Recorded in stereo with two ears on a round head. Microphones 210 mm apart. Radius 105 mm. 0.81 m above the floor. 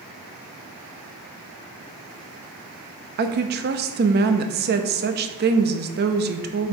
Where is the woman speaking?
45° right (ahead or behind), 0.7 m.